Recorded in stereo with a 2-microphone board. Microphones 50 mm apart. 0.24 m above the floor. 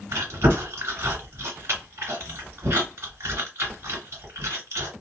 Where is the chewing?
55° right (ahead or behind), 1.8 m.